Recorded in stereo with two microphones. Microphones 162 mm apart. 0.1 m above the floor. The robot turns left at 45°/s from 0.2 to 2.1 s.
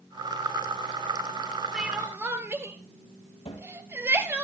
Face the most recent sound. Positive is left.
turn(degrees=45)  # may be behind; listen again after turning